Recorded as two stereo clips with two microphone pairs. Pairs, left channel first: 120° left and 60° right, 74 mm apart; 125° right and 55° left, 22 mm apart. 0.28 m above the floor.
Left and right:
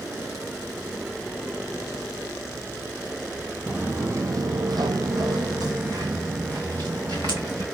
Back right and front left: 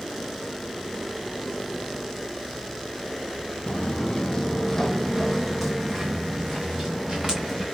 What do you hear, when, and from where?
3.7 s footsteps: 125° right, 0.5 m; by 7.7 s 25° right, 2 m